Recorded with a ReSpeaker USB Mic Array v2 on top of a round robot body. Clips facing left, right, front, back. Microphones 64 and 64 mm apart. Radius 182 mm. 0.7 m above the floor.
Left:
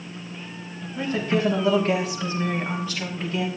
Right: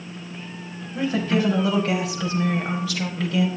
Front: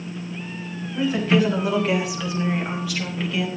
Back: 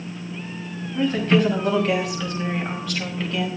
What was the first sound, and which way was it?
A woman speaking, 85° right.